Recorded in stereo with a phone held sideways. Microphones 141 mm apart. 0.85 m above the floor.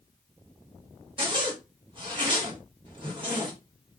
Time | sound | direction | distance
1.2 | a zipper | 35° right (ahead or behind) | 1.4 m